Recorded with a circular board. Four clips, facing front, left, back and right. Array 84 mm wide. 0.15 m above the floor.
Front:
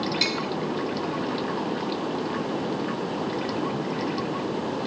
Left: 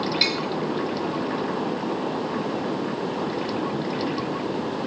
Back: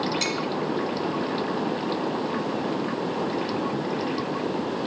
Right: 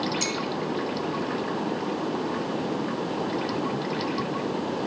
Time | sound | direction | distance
0.2 | tapping | 70° left | 1.6 m